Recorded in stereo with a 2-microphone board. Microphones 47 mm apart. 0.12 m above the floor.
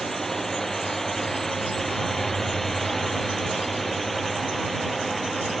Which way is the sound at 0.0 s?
5° left (ahead or behind).